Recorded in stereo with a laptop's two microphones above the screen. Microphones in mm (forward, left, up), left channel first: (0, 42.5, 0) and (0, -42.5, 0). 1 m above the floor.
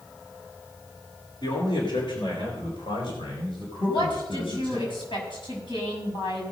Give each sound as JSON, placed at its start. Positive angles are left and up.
{"t": 1.4, "sound": "a man speaking", "side_deg": 60, "distance_m": 3.0}
{"t": 3.8, "sound": "a woman speaking", "side_deg": 70, "distance_m": 6.0}